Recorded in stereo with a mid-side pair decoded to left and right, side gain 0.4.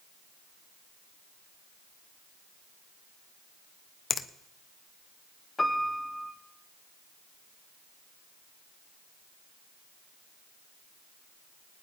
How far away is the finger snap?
About 0.8 m.